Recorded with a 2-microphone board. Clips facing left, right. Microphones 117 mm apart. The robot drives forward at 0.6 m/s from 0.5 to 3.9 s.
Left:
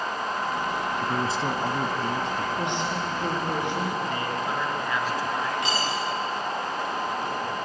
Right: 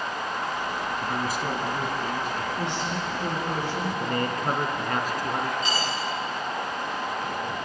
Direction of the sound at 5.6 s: 75° left (ahead or behind).